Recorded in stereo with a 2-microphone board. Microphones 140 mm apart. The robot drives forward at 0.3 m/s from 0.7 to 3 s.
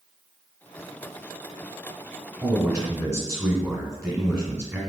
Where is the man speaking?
20° right (ahead or behind), 1.7 m; by 4.8 s 25° right (ahead or behind), 1.6 m.